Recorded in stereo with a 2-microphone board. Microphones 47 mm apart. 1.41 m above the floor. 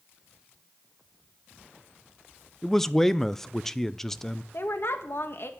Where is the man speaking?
10° left (ahead or behind), 0.5 m.